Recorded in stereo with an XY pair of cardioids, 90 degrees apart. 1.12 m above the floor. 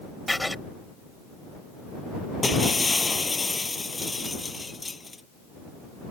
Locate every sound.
0.3 s writing: 5° left
2.4 s breaking glass: 25° left